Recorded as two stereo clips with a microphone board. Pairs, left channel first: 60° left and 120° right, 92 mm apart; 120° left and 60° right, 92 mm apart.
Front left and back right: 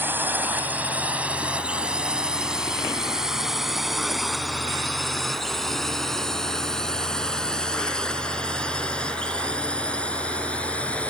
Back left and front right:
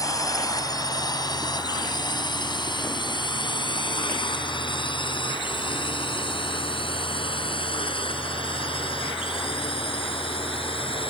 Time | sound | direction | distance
0.0 | a drone | 170° left | ?